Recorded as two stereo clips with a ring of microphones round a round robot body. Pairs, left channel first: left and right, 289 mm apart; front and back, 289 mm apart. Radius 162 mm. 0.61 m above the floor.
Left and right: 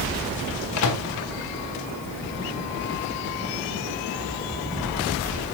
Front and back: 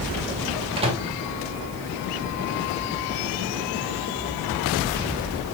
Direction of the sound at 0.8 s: 110° left.